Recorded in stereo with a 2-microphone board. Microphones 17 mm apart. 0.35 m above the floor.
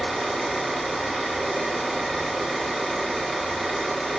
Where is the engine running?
5° left (ahead or behind), 1.6 m.